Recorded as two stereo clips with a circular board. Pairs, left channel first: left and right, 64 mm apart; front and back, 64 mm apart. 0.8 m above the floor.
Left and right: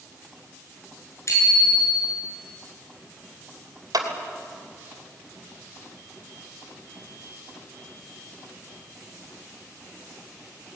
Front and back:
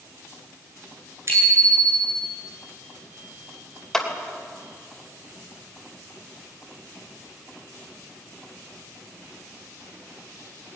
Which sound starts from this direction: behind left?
A bicycle bell, at 1.3 s.